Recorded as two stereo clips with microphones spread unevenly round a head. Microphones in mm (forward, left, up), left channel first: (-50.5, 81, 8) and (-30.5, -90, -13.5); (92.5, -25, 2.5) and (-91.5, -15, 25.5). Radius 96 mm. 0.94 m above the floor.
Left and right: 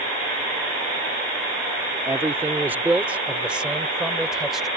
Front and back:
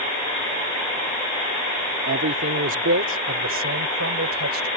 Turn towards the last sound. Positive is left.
turn(degrees=-170)